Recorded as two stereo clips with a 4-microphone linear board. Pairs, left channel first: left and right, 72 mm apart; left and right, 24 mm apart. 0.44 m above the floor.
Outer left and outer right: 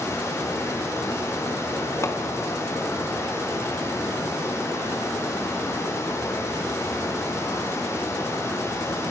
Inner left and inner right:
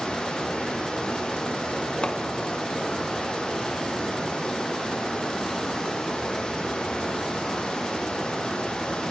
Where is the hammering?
40° left (ahead or behind), 3 m.